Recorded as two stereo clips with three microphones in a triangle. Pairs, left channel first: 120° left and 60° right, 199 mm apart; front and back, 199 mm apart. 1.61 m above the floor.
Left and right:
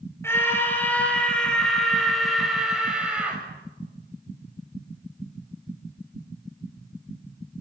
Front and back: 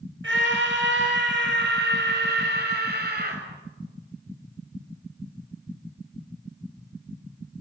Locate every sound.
0.2 s a scream: 160° right, 6.5 m; by 3.4 s 145° right, 7.5 m